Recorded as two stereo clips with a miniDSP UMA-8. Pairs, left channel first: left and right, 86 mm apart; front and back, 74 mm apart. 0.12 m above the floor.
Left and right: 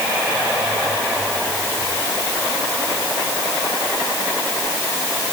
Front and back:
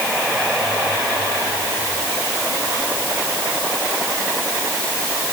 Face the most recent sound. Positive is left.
No sound to turn to.